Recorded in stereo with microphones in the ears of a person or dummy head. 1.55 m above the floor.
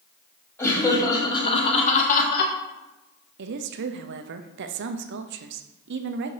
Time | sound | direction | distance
0.6 | laughter | 10° left (ahead or behind) | 2 m
3.4 | a woman speaking | 55° right (ahead or behind) | 0.6 m